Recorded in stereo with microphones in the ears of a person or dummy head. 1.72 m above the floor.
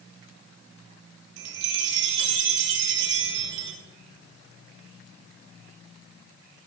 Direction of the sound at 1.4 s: 65° right (ahead or behind).